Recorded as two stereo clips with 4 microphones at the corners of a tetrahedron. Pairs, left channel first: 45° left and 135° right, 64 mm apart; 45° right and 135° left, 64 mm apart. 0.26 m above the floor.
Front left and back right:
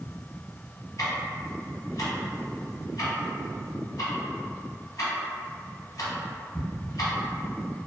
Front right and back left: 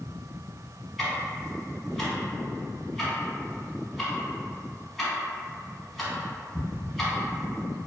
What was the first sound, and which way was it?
Ticking, 45° left.